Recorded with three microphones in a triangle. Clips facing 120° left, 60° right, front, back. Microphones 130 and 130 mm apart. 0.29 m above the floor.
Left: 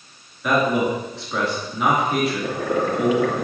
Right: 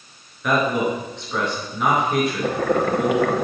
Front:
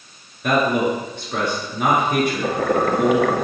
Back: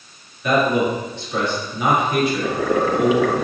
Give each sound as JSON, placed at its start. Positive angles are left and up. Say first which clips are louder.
{"t": 0.4, "sound": "a man speaking", "louder": "left 1 dB, back 1 dB", "azimuth_deg": 35, "distance_m": 4.0}
{"t": 2.4, "sound": "boiling", "louder": "right 2 dB, even", "azimuth_deg": -35, "distance_m": 0.9}